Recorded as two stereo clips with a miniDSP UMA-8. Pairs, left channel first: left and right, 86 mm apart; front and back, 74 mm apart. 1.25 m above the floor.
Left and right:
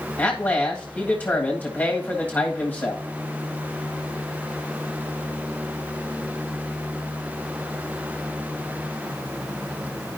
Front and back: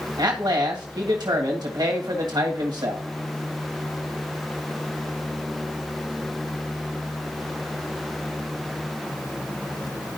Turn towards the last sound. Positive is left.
turn(degrees=160)